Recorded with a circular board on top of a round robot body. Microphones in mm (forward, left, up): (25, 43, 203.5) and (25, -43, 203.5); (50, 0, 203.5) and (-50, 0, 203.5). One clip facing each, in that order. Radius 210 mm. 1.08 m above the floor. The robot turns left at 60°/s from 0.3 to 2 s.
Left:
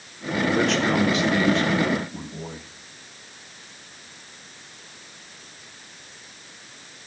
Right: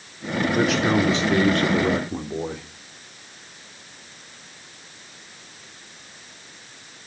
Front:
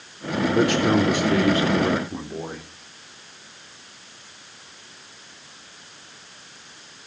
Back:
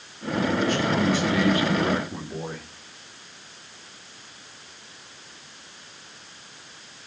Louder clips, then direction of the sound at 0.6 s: Right 2 dB, front 7 dB; 5° left.